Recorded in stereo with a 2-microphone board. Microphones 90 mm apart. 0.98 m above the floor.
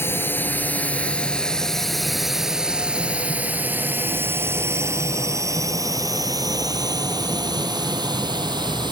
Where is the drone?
25° left (ahead or behind); by 8.9 s 50° right (ahead or behind).